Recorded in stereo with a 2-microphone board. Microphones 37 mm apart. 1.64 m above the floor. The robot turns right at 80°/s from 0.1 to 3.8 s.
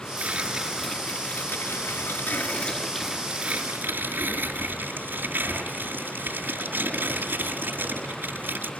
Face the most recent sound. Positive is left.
turn(degrees=-120)